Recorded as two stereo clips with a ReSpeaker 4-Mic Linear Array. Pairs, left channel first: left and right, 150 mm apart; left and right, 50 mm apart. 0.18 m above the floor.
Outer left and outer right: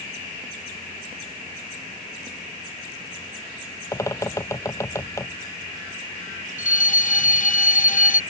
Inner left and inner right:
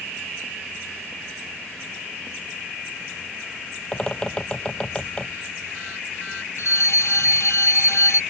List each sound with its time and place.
3.9 s a bird: 20° left (ahead or behind)
6.6 s a fire alarm: 60° left (ahead or behind)